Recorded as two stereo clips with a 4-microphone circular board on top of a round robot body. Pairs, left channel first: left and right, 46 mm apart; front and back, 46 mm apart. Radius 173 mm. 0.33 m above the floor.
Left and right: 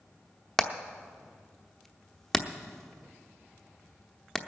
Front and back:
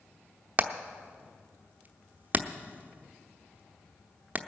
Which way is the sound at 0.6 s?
170° left.